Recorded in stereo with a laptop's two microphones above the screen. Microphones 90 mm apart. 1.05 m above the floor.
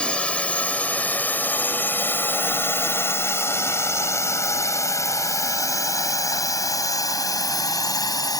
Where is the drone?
10° left (ahead or behind); by 8.4 s 45° left (ahead or behind).